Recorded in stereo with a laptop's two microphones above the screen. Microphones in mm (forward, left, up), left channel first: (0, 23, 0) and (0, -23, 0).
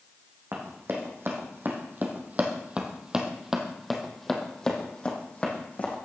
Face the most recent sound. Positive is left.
turn(degrees=35)  # may be behind; listen again after turning